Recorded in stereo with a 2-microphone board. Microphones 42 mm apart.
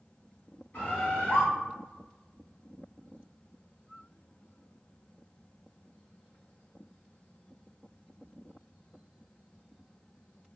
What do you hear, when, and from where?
0.7 s a bird: 55° left (ahead or behind), 1.0 m